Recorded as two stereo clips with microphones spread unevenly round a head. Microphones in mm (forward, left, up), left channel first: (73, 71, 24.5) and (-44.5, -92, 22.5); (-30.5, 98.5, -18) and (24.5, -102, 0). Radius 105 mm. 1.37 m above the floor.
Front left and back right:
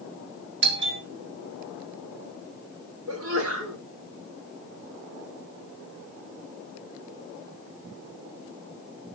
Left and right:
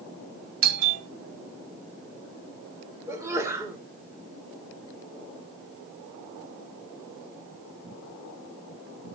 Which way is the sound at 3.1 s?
150° right.